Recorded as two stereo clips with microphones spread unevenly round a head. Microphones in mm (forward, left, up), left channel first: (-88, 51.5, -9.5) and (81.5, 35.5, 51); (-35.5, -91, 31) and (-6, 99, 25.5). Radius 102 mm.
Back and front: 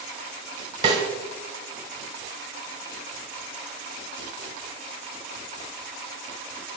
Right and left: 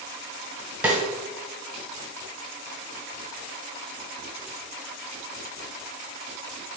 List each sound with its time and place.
0.8 s a snare drum: 5° right, 1.4 m